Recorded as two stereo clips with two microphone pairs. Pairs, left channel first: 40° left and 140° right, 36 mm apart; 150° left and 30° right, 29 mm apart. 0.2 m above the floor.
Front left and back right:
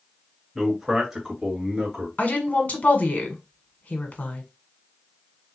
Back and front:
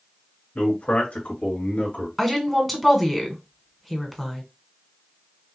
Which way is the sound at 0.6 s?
145° left.